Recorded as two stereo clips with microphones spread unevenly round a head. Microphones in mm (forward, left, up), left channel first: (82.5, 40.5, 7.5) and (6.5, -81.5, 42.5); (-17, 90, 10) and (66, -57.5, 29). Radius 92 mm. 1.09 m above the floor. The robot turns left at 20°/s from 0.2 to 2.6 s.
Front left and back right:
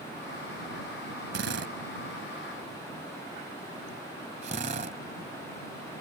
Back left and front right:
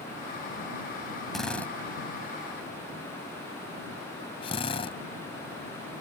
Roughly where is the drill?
Behind right.